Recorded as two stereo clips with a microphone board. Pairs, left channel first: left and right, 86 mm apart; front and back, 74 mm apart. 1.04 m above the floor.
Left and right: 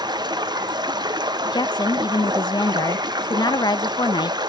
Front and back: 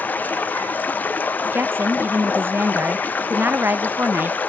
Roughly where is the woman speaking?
Behind left.